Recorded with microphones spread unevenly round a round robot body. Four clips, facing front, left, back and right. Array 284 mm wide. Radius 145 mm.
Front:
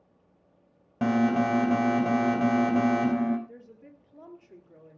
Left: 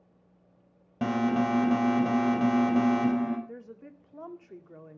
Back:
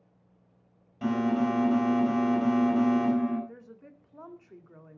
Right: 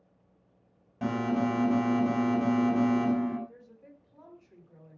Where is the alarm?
35° left, 5 m.